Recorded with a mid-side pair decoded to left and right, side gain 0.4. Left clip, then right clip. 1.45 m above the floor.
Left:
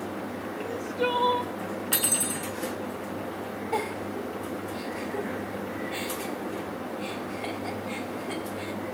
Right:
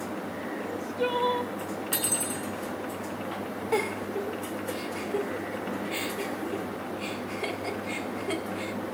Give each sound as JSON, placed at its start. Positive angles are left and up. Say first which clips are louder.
{"t": 0.6, "sound": "crying", "louder": "left 2 dB", "azimuth_deg": 25, "distance_m": 0.7}
{"t": 1.9, "sound": "cutlery clinking", "louder": "left 3 dB", "azimuth_deg": 30, "distance_m": 1.9}
{"t": 3.7, "sound": "a giggle", "louder": "right 2 dB", "azimuth_deg": -65, "distance_m": 1.9}